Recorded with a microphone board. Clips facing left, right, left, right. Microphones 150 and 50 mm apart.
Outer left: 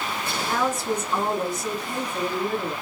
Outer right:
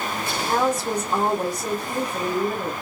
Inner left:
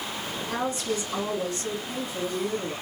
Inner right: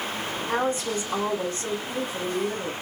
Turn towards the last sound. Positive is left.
turn(degrees=-40)  # may be behind; listen again after turning